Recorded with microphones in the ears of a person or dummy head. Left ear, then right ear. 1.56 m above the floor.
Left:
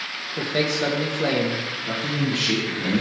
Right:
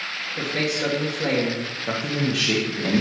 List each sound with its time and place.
0.4 s a man speaking: 35° left (ahead or behind), 1.0 m
1.9 s a man speaking: 15° right (ahead or behind), 0.7 m